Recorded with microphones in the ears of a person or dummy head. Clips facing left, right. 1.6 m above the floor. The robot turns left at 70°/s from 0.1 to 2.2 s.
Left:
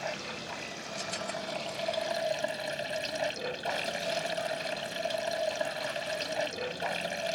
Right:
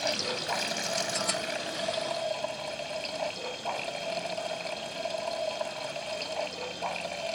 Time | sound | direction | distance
0.0 | running water | 55° right | ?